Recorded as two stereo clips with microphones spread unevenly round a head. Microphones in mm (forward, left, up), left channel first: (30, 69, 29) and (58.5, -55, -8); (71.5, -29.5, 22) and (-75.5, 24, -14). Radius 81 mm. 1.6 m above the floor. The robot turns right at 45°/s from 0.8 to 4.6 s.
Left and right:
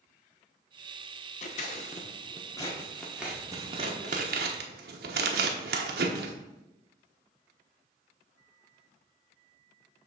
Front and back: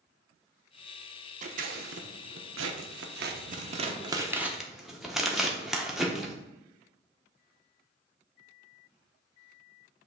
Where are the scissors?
110° left, 1.0 m; by 6.3 s 105° right, 1.0 m.